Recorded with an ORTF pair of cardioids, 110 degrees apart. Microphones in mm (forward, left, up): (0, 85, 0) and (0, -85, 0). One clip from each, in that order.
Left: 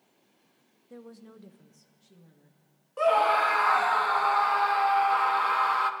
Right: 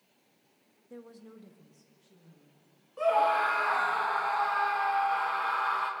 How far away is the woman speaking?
About 0.6 m.